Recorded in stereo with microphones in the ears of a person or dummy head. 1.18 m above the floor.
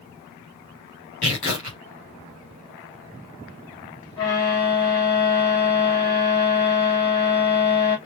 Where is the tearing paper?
40° left (ahead or behind), 3.5 m.